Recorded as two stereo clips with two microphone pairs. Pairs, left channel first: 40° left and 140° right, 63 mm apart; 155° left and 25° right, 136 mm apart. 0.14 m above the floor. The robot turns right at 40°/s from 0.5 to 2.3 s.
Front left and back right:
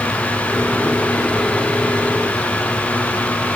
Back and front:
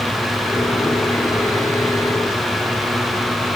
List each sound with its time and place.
Only background noise.